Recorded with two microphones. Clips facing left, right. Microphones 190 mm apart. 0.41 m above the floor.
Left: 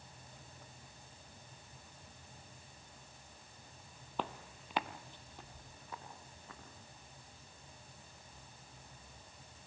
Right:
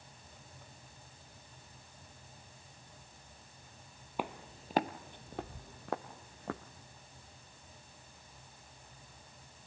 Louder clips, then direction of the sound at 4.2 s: Right 2 dB; 10° right (ahead or behind).